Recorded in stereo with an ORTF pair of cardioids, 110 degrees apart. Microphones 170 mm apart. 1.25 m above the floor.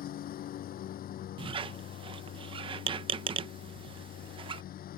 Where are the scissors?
No scissors in this recording.